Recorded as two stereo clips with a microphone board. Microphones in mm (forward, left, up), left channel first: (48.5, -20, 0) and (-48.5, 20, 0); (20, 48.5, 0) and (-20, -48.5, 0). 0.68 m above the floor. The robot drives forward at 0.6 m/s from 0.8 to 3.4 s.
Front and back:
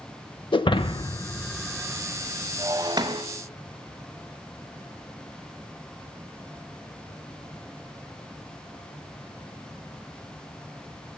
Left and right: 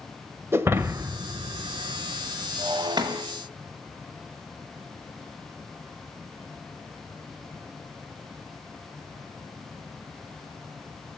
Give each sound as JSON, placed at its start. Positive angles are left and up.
{"t": 0.5, "sound": "breaking glass", "azimuth_deg": -50, "distance_m": 0.6}